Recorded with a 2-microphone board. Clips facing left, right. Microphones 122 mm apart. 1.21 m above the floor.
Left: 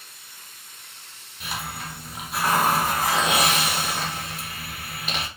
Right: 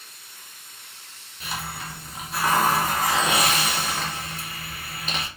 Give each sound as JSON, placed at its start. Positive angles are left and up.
{"t": 1.4, "sound": "a hiss", "side_deg": 5, "distance_m": 1.5}